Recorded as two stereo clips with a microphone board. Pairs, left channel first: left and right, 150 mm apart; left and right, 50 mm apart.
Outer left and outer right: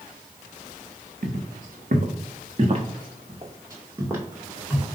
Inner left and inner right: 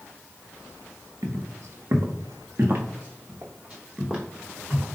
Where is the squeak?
I don't hear a squeak.